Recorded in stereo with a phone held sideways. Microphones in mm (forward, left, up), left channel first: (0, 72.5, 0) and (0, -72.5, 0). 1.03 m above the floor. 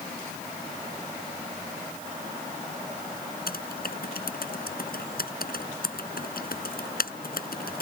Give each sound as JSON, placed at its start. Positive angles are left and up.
{"t": 3.5, "sound": "typing on a keyboard", "side_deg": 75}